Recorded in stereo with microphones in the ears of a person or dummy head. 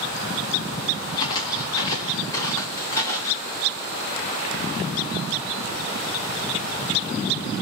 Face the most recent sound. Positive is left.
turn(degrees=10)  # may be behind; listen again after turning